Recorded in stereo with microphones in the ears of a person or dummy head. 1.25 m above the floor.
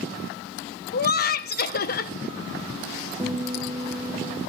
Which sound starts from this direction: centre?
A guitar, at 3.2 s.